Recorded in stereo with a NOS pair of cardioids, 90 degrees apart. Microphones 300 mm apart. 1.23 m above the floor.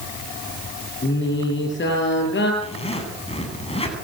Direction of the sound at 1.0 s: 35° left.